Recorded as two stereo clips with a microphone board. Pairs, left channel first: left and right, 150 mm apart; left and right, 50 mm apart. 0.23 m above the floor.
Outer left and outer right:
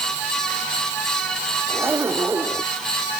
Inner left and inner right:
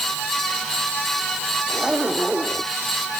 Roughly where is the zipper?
Centre.